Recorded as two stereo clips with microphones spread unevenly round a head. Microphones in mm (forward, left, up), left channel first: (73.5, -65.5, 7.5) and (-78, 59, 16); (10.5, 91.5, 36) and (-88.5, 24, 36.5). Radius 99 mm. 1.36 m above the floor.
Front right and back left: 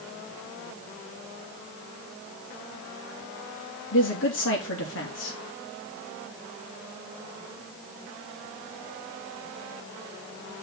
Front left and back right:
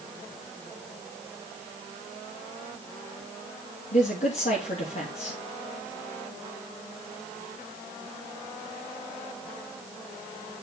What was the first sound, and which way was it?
A man speaking, 10° right.